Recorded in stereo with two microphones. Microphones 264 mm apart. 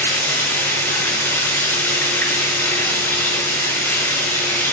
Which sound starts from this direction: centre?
Running water, at 0.0 s.